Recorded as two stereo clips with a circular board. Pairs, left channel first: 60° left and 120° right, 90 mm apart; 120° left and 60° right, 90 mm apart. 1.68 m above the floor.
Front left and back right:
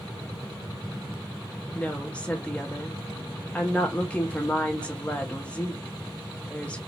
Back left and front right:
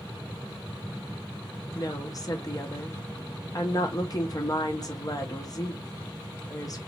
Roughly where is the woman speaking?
Behind left.